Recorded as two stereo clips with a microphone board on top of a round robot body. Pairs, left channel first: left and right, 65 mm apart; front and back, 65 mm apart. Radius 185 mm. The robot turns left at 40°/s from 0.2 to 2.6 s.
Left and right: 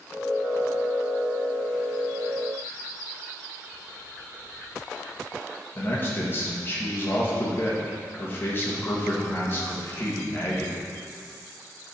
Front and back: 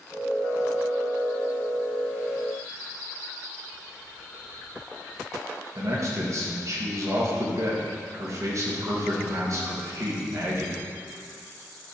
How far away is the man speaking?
About 1.8 m.